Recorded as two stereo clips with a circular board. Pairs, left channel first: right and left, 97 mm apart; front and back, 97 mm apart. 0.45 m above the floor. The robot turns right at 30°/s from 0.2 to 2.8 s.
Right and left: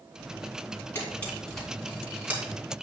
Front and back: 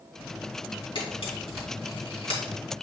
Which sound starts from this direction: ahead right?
A camera shutter, at 0.9 s.